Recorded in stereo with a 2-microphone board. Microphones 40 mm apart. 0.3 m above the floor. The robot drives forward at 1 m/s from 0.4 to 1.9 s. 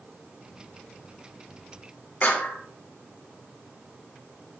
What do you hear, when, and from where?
2.2 s a clap: 50° left (ahead or behind), 1.8 m